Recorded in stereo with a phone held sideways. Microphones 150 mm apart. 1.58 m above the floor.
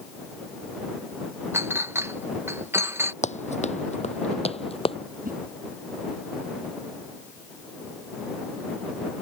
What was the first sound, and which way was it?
A clink, 15° right (ahead or behind).